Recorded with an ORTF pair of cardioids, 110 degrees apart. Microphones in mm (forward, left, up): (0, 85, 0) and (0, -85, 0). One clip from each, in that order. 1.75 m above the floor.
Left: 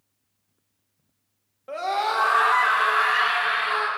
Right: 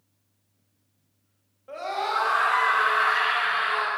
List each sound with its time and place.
1.7 s a scream: 35° left, 4 m; by 3.9 s 20° left, 7 m